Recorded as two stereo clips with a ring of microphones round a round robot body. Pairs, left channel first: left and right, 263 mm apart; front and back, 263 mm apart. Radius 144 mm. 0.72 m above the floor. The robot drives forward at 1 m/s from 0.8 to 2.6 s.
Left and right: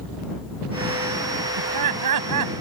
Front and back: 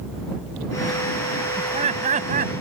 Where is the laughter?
110° right; by 2.5 s 115° right.